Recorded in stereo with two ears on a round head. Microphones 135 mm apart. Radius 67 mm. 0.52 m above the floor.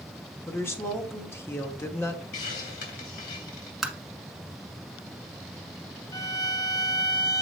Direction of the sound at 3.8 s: Centre (ahead or behind).